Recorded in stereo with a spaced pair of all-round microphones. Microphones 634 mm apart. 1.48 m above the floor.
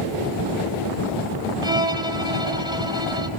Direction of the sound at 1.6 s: 5° right (ahead or behind).